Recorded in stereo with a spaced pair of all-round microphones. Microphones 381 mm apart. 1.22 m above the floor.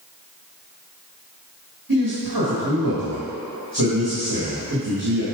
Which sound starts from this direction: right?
A man speaking, at 1.9 s.